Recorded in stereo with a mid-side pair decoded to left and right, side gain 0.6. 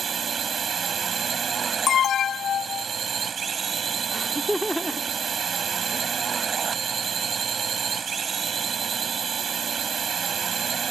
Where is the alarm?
45° left.